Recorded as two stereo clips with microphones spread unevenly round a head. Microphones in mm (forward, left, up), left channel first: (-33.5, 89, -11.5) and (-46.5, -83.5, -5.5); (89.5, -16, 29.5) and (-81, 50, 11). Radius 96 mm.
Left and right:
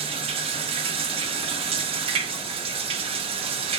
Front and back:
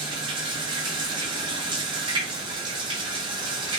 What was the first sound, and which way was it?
Running water, 135° right.